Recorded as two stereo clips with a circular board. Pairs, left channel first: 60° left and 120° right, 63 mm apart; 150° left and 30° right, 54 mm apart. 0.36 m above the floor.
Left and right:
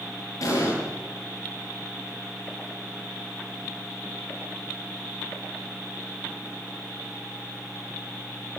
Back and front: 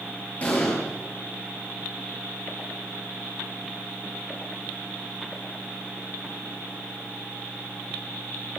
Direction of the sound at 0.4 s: 90° left.